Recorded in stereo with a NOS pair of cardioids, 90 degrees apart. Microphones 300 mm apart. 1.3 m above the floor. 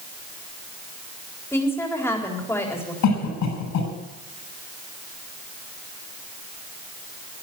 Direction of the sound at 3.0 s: 70° left.